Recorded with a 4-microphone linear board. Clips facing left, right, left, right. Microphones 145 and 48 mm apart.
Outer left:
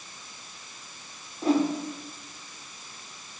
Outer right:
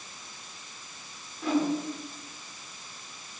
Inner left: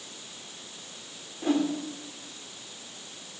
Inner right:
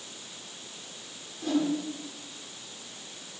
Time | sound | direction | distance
1.4 | a whoosh | 35° left (ahead or behind) | 1.0 m